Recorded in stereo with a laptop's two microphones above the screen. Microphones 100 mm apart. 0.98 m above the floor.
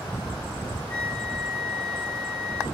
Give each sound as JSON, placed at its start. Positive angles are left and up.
{"t": 0.9, "sound": "a flute", "side_deg": 20, "distance_m": 0.7}